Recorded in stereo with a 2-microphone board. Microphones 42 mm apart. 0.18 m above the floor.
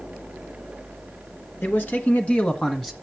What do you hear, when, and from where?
1.6 s a man speaking: 50° left (ahead or behind), 1.9 m; by 2.9 s 5° left (ahead or behind), 1.2 m